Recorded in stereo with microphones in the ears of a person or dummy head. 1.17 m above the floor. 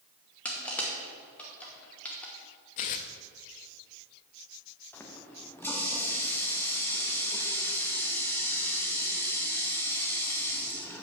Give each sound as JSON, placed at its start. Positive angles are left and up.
{"t": 0.5, "sound": "crushing", "side_deg": 5, "distance_m": 1.1}
{"t": 2.8, "sound": "tearing paper", "side_deg": 35, "distance_m": 0.6}
{"t": 4.9, "sound": "a running tap", "side_deg": 10, "distance_m": 1.0}